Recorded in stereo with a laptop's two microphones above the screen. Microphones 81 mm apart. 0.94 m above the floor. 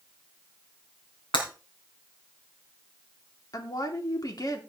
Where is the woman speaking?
50° left (ahead or behind), 2.5 m.